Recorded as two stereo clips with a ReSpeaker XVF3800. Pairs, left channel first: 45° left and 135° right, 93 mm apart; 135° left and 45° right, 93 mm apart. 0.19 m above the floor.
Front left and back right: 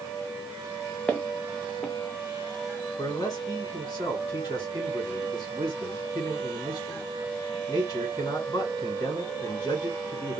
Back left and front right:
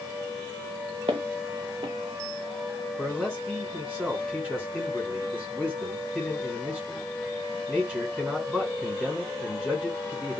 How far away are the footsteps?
About 0.6 m.